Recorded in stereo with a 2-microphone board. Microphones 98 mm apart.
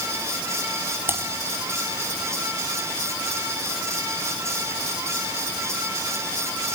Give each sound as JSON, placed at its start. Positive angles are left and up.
{"t": 1.1, "sound": "typing on a keyboard", "side_deg": -25, "distance_m": 2.0}